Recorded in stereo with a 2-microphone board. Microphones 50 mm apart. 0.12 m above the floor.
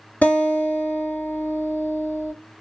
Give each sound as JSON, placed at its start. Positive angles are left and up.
{"t": 0.2, "sound": "a guitar", "side_deg": 35, "distance_m": 2.0}